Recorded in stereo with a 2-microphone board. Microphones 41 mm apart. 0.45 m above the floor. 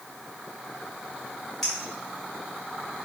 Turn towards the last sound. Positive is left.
turn(degrees=10)  # may be behind; listen again after turning